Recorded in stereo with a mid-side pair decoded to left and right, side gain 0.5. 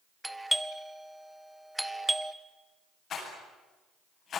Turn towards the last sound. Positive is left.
turn(degrees=50)